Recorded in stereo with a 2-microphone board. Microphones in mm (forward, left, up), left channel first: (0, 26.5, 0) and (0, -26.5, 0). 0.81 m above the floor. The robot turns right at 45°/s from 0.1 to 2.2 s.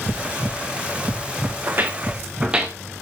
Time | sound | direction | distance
1.7 | footsteps | 50° right (ahead or behind) | 2.5 m